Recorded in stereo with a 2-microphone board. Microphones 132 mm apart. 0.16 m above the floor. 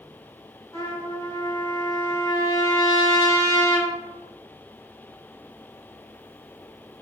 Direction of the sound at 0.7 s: 25° left (ahead or behind).